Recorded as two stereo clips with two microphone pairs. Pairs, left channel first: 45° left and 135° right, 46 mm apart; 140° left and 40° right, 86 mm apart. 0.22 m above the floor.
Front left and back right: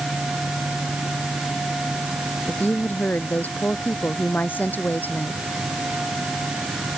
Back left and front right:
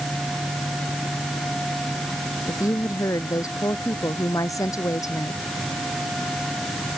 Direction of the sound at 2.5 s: 90° left.